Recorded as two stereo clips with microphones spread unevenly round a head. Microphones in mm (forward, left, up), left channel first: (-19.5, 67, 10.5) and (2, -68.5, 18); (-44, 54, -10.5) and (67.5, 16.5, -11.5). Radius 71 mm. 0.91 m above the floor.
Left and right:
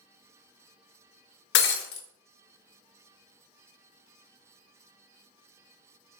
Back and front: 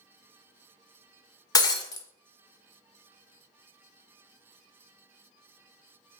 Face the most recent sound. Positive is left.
turn(degrees=100)